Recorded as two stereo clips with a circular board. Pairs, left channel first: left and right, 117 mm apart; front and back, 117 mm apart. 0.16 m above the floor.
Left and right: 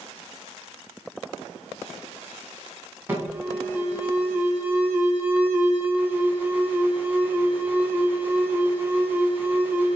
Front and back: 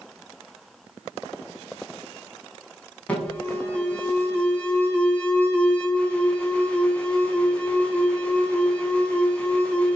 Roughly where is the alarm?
Ahead right.